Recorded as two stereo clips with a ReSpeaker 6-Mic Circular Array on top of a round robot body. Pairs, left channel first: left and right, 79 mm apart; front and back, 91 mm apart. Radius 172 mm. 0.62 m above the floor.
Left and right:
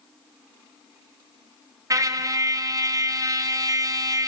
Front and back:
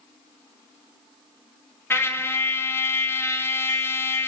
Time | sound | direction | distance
1.9 | a trumpet | 55° right | 1.0 m